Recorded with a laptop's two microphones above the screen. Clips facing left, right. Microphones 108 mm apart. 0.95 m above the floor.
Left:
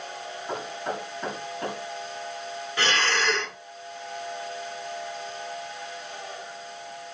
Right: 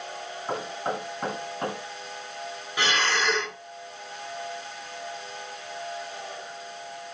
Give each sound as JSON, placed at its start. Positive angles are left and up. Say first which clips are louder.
{"t": 0.5, "sound": "knocking", "louder": "right 2 dB", "side_deg": -90, "distance_m": 6.0}
{"t": 2.8, "sound": "breathing", "louder": "even", "side_deg": -15, "distance_m": 1.2}